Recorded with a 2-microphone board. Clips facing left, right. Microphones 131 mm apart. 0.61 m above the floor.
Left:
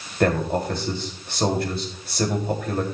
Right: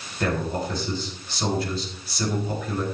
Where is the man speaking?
60° left (ahead or behind), 3 m.